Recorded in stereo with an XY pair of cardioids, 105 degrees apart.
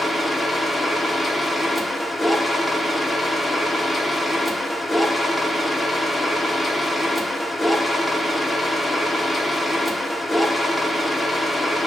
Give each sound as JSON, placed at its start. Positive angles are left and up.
{"t": 0.0, "sound": "a machine running", "azimuth_deg": 10, "distance_m": 0.8}